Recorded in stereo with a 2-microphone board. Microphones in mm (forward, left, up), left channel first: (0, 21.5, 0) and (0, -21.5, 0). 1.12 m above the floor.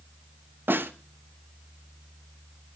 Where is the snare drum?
55° right (ahead or behind), 0.9 m.